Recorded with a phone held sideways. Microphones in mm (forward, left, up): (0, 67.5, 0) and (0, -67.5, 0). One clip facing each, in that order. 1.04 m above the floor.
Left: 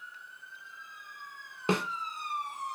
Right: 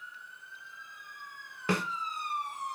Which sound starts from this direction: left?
A snare drum, at 1.7 s.